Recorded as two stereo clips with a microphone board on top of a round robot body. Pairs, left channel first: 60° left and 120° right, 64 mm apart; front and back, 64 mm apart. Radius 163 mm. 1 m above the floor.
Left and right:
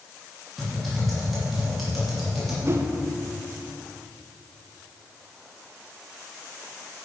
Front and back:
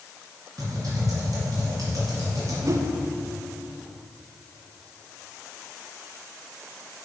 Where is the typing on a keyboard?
150° left, 2.5 m.